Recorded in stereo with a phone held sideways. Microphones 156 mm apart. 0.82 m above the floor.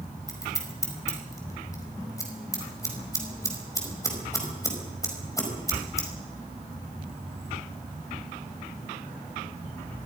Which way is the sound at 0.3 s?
20° left (ahead or behind).